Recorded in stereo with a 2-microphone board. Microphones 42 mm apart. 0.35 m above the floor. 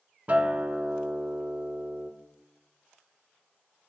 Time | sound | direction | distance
0.3 | a guitar | 30° right (ahead or behind) | 0.6 m